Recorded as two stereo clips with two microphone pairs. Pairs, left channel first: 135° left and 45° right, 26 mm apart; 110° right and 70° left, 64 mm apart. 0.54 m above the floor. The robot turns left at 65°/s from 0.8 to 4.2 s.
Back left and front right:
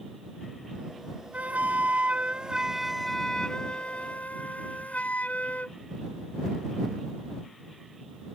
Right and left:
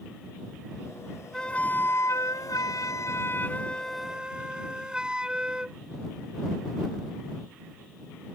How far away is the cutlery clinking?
No cutlery clinking in this recording.